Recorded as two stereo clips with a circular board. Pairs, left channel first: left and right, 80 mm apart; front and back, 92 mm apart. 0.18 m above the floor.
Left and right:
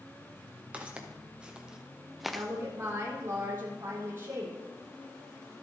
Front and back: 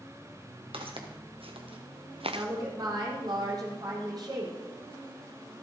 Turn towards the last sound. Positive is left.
turn(degrees=-140)